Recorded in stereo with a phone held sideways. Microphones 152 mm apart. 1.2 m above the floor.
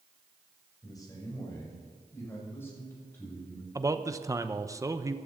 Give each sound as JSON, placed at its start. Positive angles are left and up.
{"t": 0.8, "sound": "a man speaking", "side_deg": 25, "distance_m": 6.0}
{"t": 3.8, "sound": "a man speaking", "side_deg": -20, "distance_m": 0.9}